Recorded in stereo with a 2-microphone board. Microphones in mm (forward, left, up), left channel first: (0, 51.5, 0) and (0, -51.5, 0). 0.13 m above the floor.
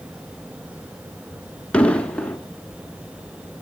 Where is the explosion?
10° left (ahead or behind), 0.9 m.